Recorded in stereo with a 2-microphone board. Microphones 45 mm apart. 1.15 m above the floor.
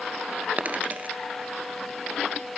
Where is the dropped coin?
35° right (ahead or behind), 2 m.